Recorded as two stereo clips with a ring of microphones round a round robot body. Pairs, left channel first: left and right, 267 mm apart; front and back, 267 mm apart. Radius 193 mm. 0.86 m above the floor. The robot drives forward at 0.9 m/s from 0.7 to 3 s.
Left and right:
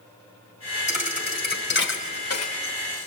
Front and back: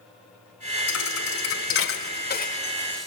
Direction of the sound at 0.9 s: 25° left.